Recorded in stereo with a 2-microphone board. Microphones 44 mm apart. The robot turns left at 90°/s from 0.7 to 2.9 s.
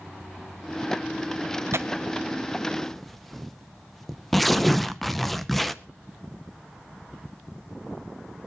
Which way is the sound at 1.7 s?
70° right (ahead or behind).